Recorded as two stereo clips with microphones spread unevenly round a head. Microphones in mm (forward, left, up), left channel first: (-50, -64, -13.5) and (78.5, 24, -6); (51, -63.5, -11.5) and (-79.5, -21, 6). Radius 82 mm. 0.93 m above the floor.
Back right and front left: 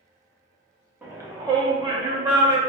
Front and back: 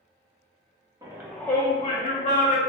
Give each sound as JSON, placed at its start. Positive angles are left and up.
{"t": 1.0, "sound": "a shout", "azimuth_deg": 110, "distance_m": 0.5}